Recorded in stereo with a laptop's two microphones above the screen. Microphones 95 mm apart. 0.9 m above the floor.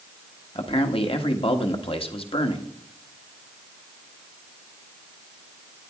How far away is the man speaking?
About 1.5 m.